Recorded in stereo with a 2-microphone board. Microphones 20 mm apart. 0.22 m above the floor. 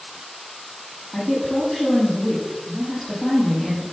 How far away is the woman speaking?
About 8.5 m.